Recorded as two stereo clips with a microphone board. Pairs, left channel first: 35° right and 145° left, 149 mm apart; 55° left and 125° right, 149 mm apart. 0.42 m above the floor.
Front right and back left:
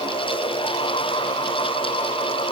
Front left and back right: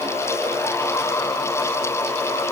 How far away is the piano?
No piano in this recording.